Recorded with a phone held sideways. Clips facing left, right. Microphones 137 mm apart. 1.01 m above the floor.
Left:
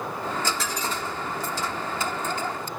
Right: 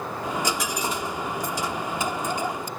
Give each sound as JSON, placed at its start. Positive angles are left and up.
{"t": 0.2, "sound": "a dropped coin", "side_deg": -15}